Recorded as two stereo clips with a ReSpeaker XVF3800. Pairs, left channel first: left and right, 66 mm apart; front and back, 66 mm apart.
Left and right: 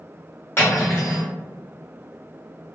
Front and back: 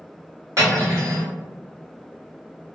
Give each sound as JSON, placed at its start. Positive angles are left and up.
{"t": 0.6, "sound": "cutlery clinking", "azimuth_deg": 145, "distance_m": 1.7}